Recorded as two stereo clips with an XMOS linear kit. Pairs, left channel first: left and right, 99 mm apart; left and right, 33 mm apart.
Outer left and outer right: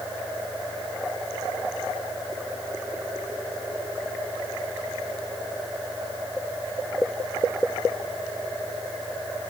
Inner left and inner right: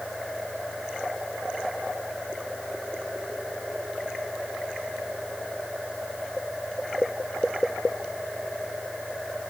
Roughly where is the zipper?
I don't hear a zipper.